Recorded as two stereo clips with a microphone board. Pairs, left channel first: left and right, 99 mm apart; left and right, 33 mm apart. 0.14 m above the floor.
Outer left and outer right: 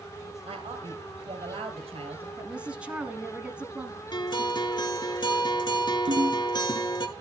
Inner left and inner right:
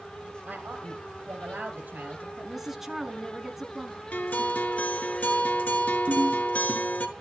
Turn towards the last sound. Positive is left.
turn(degrees=-70)  # may be behind; listen again after turning